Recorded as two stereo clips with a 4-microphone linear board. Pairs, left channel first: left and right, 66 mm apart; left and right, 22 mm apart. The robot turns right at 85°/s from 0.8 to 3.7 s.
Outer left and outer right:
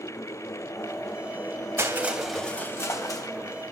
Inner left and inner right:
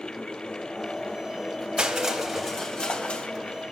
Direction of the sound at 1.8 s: 45° right.